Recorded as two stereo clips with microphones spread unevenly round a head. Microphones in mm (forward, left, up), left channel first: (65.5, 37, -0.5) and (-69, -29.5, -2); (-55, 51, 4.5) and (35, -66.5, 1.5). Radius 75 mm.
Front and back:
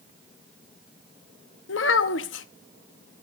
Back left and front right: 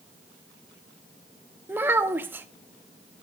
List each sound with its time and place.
1.7 s a child speaking: 25° left, 0.8 m